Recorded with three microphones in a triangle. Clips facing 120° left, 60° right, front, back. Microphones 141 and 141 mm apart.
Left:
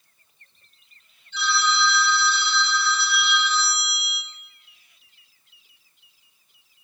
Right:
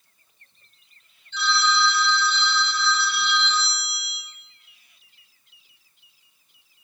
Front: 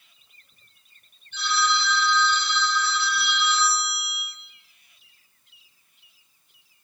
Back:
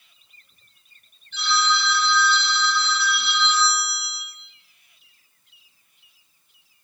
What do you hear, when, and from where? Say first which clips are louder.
1.3 s a phone ringing: right 1 dB, back 1 dB; 165° right, 3.5 m